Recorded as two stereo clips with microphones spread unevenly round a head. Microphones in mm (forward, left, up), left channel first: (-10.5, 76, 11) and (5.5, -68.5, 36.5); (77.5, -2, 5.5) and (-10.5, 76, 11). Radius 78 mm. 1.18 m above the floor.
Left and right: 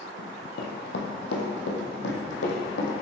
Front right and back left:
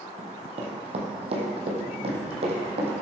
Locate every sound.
0.2 s running footsteps: 115° left, 2.5 m; by 2.9 s 110° left, 3.5 m